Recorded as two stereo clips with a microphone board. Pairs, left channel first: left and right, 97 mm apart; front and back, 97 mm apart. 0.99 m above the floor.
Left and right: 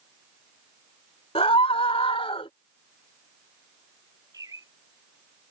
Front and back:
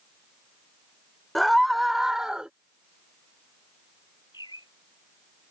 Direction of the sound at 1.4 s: 90° left.